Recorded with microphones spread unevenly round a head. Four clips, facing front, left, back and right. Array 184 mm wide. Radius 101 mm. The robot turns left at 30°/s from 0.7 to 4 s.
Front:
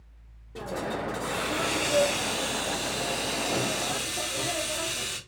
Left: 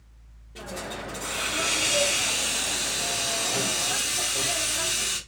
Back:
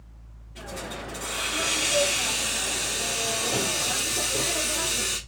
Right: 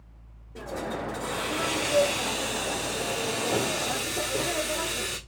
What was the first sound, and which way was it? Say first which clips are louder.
A hiss: right 3 dB, front 5 dB; 15° right.